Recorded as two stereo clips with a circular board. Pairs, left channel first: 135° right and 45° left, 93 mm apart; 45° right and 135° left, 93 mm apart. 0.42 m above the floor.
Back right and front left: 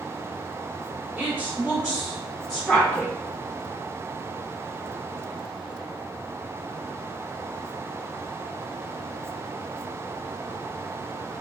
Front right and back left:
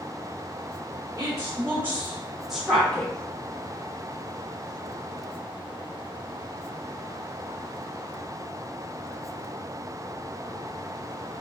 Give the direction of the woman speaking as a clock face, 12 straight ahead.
8 o'clock.